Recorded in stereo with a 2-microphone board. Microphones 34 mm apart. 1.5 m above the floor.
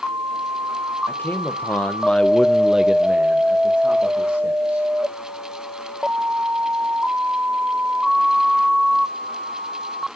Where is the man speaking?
75° left (ahead or behind), 1.1 m; by 4.9 s 65° right (ahead or behind), 2.0 m.